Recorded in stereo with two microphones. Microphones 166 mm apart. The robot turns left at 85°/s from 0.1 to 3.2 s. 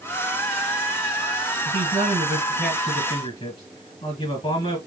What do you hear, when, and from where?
1.6 s a man speaking: 100° right, 2.5 m; by 4.8 s 130° left, 2.5 m